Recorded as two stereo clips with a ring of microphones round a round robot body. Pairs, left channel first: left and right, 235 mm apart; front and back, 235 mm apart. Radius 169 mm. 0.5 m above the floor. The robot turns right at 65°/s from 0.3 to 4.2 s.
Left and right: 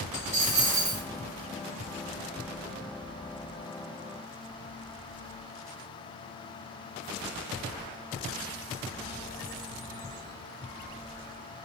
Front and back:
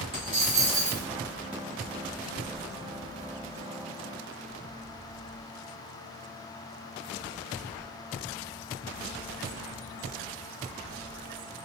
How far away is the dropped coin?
About 0.6 m.